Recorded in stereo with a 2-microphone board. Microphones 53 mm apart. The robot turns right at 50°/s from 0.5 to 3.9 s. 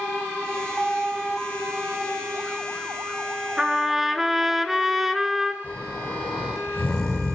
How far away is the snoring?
About 5.5 m.